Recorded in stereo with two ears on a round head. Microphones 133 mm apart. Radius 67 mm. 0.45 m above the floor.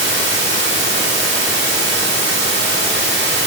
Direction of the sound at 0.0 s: 85° right.